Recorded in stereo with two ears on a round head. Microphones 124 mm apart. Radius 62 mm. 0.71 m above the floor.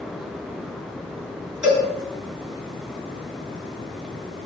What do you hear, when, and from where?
1.6 s a cowbell: 10° right (ahead or behind), 4 m